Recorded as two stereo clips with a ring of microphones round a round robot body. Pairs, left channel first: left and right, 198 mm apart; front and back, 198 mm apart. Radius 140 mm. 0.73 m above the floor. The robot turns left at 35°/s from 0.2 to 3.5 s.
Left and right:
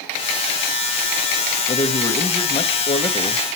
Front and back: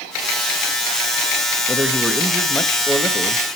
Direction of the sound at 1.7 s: 105° left.